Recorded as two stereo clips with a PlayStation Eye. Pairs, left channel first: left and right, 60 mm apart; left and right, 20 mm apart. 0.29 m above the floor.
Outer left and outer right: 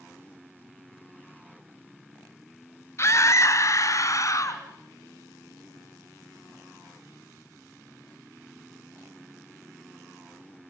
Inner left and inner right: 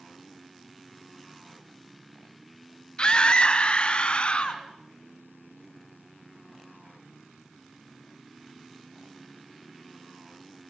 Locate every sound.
3.0 s a scream: 50° left (ahead or behind), 1.4 m; by 4.6 s 55° left (ahead or behind), 2.5 m